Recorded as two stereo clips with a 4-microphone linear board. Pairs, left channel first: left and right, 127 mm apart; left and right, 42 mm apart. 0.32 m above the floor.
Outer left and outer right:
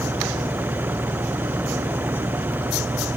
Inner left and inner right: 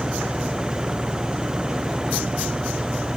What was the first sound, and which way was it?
An engine running, 15° right (ahead or behind).